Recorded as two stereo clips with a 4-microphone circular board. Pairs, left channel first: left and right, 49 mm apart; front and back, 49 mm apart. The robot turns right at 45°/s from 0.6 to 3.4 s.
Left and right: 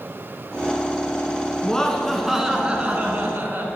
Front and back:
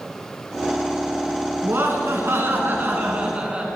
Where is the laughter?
160° left, 2 m; by 3.6 s 120° right, 2 m.